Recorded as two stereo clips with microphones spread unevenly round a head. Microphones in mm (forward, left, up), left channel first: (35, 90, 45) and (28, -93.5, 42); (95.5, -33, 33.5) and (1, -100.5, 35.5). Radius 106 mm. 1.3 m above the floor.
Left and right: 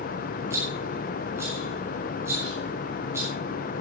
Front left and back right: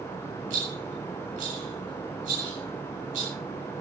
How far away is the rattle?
About 9.5 m.